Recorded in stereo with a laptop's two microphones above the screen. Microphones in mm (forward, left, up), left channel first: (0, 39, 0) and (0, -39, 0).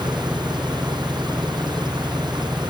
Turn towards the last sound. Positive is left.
turn(degrees=-85)